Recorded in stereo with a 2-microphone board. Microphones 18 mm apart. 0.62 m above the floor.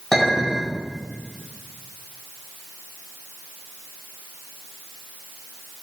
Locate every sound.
0.1 s a clink: 20° left (ahead or behind), 1.9 m